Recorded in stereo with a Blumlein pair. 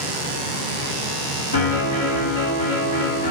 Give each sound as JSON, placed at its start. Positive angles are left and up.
{"t": 1.5, "sound": "a piano", "azimuth_deg": 60, "distance_m": 1.9}